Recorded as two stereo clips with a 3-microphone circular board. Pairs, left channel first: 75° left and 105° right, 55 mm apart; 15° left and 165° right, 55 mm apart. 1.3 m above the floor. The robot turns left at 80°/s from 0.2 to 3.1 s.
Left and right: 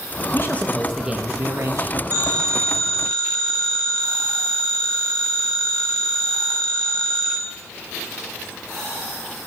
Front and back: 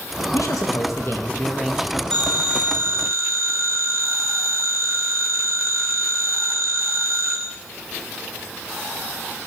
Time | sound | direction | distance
0.3 | a man speaking | 30° left | 1.8 m
2.1 | a phone ringing | 60° right | 5 m